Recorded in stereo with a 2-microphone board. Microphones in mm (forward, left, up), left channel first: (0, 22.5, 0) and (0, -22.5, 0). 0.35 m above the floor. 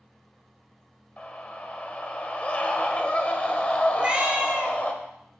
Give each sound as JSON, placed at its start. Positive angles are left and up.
{"t": 1.2, "sound": "a scream", "side_deg": 30, "distance_m": 1.2}
{"t": 3.9, "sound": "a cat meowing", "side_deg": -20, "distance_m": 2.0}